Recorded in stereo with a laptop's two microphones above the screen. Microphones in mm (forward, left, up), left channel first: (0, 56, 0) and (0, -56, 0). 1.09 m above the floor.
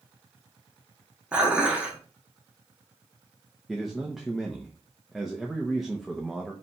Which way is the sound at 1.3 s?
10° right (ahead or behind).